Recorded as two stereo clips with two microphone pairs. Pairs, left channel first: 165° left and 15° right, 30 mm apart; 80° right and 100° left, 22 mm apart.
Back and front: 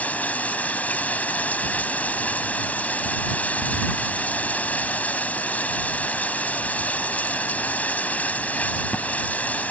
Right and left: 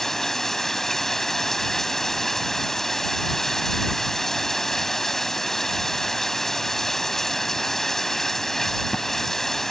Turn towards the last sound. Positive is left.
turn(degrees=-160)